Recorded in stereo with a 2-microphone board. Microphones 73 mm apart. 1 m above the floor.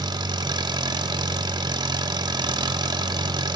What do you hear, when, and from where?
0.0 s an engine running: 75° right (ahead or behind), 1.4 m